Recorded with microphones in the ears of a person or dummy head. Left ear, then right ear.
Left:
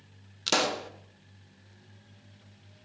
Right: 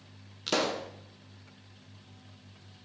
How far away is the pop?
About 0.6 m.